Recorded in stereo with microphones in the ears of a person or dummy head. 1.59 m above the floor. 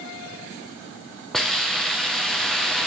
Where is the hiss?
5° left (ahead or behind), 0.7 m.